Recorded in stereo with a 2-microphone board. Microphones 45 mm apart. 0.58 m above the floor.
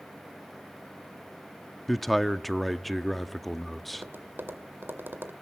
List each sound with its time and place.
1.9 s a man speaking: centre (ahead or behind), 0.7 m
3.9 s tapping: 55° right (ahead or behind), 1.9 m